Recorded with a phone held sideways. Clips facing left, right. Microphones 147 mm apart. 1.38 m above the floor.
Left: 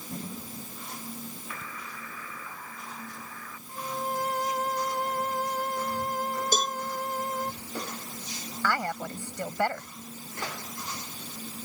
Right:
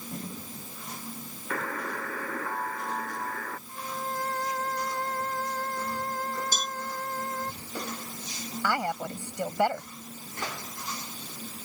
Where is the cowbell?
55° left (ahead or behind).